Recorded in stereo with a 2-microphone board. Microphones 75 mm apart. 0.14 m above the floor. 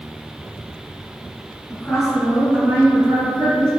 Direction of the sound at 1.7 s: 15° left (ahead or behind).